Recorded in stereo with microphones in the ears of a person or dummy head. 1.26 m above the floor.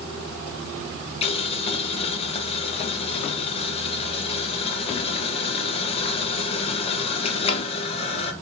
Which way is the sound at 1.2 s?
40° left (ahead or behind).